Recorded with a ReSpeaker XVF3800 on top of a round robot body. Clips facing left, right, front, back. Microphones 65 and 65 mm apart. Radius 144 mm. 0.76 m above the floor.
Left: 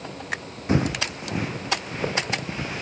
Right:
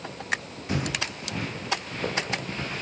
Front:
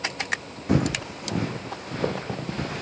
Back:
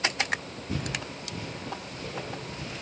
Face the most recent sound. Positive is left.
turn(degrees=10)